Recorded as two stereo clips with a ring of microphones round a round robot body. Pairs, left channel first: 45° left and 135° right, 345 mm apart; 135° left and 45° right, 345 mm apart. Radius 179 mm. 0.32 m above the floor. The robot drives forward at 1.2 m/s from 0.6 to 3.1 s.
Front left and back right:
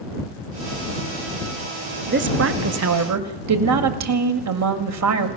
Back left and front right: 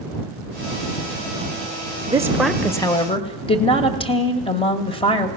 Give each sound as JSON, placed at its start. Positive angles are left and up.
{"t": 2.1, "sound": "a woman speaking", "azimuth_deg": -110, "distance_m": 1.6}